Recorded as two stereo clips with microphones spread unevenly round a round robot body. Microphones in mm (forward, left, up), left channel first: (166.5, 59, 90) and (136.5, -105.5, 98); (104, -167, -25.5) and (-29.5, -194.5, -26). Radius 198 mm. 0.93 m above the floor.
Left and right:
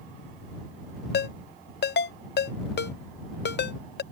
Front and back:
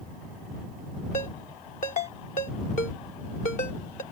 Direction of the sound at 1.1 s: 65° left.